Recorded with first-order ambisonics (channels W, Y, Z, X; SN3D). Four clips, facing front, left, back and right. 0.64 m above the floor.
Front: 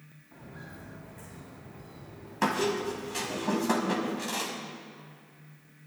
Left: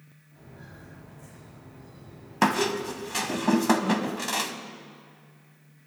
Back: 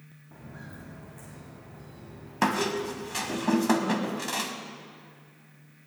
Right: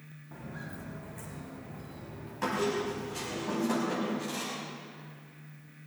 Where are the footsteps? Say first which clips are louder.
Right 6 dB, back 1 dB; 110° right, 3 m; by 3.4 s 95° right, 4.5 m.